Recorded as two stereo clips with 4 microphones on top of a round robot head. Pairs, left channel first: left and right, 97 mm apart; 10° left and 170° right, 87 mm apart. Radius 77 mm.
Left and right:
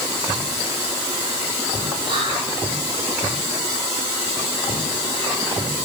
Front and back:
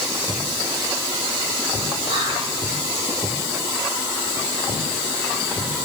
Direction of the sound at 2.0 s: 135° right.